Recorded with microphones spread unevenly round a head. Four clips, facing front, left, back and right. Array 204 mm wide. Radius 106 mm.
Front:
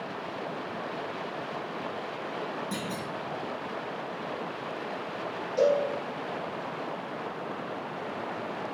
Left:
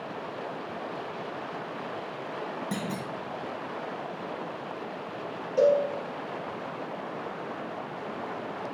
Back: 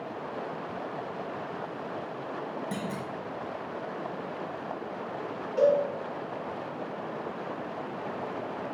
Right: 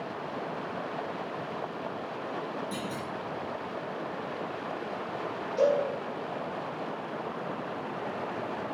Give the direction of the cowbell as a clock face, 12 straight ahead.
9 o'clock.